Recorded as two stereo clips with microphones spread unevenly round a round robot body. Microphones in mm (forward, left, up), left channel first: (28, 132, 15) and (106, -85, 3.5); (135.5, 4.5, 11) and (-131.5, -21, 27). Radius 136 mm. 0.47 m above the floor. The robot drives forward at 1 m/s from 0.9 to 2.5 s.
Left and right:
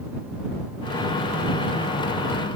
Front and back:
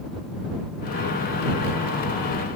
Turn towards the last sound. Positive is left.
No sound to turn to.